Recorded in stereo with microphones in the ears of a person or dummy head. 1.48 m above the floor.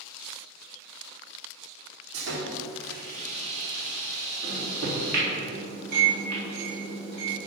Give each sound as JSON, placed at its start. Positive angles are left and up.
{"t": 2.1, "sound": "sawing", "side_deg": -80, "distance_m": 2.5}
{"t": 4.4, "sound": "a microwave", "side_deg": -65, "distance_m": 2.5}